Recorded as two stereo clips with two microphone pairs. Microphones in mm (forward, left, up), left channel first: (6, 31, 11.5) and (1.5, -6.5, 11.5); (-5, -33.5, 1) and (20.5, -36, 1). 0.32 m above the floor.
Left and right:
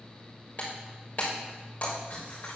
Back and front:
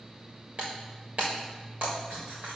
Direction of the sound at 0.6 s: 35° left.